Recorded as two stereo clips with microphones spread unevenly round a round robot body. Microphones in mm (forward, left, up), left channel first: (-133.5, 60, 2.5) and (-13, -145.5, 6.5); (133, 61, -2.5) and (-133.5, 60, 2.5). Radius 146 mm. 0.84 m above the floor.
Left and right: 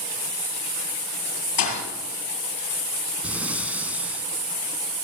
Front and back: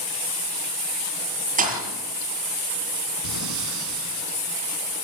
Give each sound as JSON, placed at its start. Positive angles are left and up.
{"t": 1.6, "sound": "a thud", "azimuth_deg": 120, "distance_m": 7.5}
{"t": 3.2, "sound": "breathing", "azimuth_deg": -145, "distance_m": 3.0}